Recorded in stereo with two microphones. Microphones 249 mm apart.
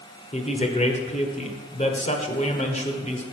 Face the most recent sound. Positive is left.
turn(degrees=30)  # may be behind; listen again after turning